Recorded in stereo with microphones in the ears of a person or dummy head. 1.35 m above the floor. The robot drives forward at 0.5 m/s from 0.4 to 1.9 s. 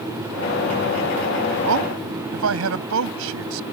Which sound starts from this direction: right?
A man speaking, at 1.6 s.